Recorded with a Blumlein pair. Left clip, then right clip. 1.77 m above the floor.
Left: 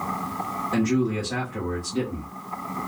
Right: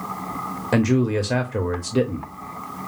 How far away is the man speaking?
About 0.8 m.